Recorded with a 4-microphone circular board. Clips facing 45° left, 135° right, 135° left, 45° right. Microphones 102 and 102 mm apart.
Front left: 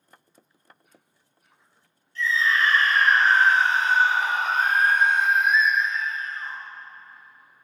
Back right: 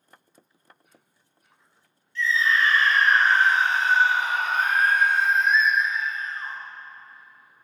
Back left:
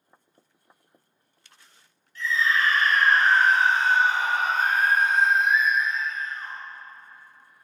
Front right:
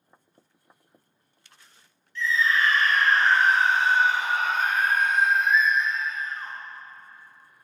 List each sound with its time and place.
2.1 s a scream: 90° left, 2.5 m; by 6.6 s 100° right, 0.8 m